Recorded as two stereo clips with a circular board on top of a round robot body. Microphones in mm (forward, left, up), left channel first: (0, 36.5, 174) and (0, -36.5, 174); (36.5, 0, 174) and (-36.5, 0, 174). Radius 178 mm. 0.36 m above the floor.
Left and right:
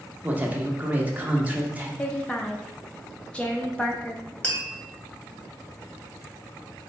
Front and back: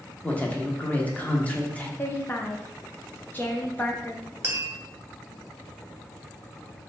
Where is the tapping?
140° left, 1.7 m.